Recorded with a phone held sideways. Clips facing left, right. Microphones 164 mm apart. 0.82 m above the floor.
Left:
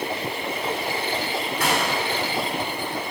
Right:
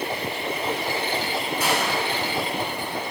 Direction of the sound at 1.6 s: 70° left (ahead or behind).